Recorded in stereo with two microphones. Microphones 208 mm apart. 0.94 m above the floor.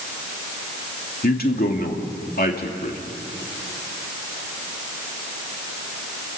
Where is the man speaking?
45° left (ahead or behind), 2.5 m.